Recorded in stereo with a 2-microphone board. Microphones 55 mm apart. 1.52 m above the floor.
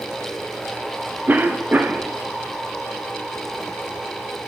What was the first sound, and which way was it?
A cough, 30° right (ahead or behind).